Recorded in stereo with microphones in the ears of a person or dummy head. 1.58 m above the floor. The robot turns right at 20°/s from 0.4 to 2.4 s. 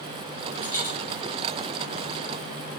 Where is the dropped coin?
15° left (ahead or behind), 2.5 m; by 0.9 s 10° left (ahead or behind), 2.5 m.